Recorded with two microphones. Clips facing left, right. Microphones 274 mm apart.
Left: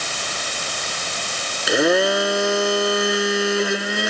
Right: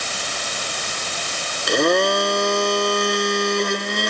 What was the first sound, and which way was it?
A blender, 5° left (ahead or behind).